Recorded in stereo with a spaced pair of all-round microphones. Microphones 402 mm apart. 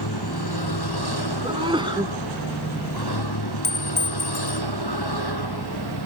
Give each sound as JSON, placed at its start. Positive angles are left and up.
{"t": 0.0, "sound": "a vehicle", "side_deg": 70}
{"t": 1.4, "sound": "a sneeze", "side_deg": -10}
{"t": 3.6, "sound": "a clink", "side_deg": 50}